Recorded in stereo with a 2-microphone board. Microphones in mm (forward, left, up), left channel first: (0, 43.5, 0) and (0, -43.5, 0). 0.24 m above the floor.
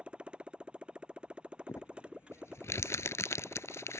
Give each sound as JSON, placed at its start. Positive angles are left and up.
{"t": 0.0, "sound": "a motorcycle", "side_deg": -10}
{"t": 1.7, "sound": "crumpling", "side_deg": 35}